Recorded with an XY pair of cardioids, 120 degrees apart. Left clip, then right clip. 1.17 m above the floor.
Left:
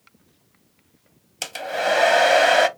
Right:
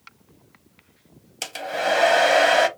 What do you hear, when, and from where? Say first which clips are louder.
1.4 s a hair dryer: left 1 dB; 10° left, 0.7 m